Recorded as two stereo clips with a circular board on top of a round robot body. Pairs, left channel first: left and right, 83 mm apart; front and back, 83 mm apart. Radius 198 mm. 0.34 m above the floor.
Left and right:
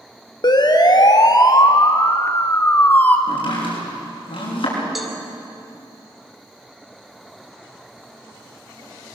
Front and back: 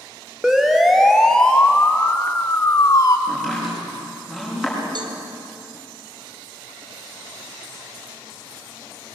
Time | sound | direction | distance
0.4 | a siren | 95° left | 2 m
3.3 | chopping | 95° left | 7 m
5.0 | a cowbell | 175° right | 2.5 m